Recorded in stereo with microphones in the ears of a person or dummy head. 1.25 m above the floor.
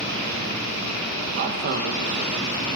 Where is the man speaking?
45° right (ahead or behind), 1.3 m.